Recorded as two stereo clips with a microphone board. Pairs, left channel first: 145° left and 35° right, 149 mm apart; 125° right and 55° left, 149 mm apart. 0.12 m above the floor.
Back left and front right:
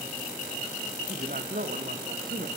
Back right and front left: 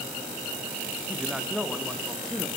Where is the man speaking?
30° right, 3.5 m; by 2.5 s 35° right, 5 m.